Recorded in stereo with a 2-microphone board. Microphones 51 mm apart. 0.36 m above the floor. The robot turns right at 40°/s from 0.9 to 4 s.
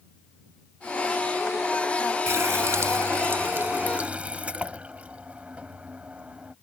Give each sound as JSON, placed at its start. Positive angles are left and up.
{"t": 2.3, "sound": "a running tap", "azimuth_deg": -100}